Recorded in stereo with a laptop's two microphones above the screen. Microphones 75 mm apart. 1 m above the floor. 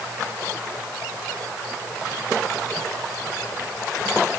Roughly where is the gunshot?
I don't hear a gunshot.